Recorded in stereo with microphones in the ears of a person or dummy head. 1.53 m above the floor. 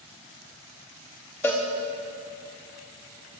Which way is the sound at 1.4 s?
10° left (ahead or behind).